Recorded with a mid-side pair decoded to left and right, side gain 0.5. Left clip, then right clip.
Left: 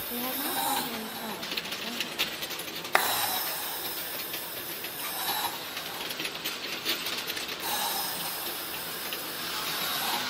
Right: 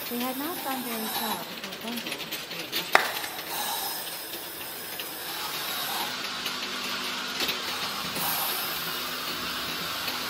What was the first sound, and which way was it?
A woman speaking, 30° right.